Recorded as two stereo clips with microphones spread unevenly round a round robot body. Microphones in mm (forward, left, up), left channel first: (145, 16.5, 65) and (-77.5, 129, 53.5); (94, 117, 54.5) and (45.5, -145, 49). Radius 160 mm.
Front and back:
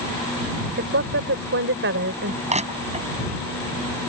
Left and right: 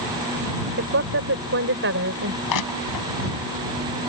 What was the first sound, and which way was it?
A woman speaking, 155° right.